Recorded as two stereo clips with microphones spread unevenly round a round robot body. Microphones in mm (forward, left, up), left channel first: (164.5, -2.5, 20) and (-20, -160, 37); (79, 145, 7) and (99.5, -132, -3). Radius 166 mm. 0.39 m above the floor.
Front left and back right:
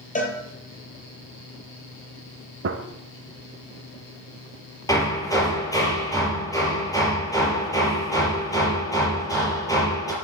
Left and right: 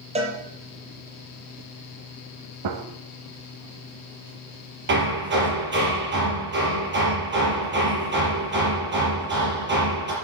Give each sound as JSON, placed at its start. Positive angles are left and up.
{"t": 0.1, "sound": "a cowbell", "azimuth_deg": -20, "distance_m": 5.0}
{"t": 2.6, "sound": "a gunshot", "azimuth_deg": -105, "distance_m": 1.1}
{"t": 4.9, "sound": "hammering", "azimuth_deg": -35, "distance_m": 6.0}